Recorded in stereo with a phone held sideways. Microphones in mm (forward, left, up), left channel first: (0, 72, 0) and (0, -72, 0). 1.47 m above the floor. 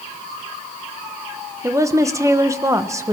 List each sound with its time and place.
1.6 s a woman speaking: 20° right (ahead or behind), 1.3 m